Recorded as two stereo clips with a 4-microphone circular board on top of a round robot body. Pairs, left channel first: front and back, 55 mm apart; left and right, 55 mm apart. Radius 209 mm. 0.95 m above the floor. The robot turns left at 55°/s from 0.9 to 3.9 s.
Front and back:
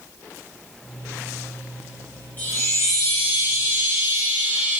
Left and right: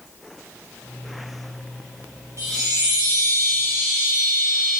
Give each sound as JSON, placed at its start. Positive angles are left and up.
{"t": 2.4, "sound": "a chime", "azimuth_deg": -60, "distance_m": 1.4}